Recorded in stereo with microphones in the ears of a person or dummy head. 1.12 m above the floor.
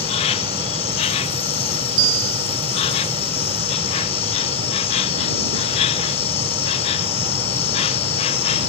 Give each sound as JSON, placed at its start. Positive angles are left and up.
{"t": 0.0, "sound": "an insect", "side_deg": 30}
{"t": 2.0, "sound": "a bell", "side_deg": -65}